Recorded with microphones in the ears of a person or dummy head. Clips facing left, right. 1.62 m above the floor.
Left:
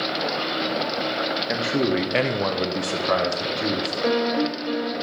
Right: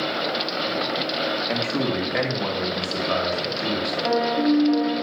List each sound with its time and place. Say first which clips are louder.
1.5 s a man speaking: left 4 dB; 5° left (ahead or behind), 0.8 m; by 3.9 s 80° left, 1.4 m
4.0 s a piano: right 1 dB; 85° left, 2.5 m